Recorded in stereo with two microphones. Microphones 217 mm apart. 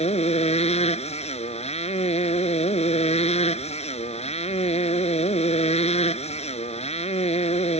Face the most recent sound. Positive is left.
turn(degrees=25)  # may be behind; listen again after turning